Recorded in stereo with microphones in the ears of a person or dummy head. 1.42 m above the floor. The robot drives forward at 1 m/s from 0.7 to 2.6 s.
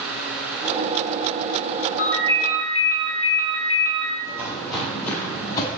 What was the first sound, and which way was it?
A ringtone, 65° left (ahead or behind).